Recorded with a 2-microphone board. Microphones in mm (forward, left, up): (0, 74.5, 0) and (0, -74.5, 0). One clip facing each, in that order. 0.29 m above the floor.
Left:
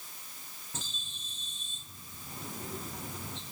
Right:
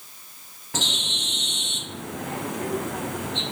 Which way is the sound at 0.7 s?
85° right.